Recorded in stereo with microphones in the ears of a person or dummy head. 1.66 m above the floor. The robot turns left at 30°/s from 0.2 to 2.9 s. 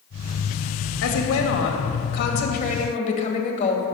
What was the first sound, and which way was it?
A woman speaking, 95° left.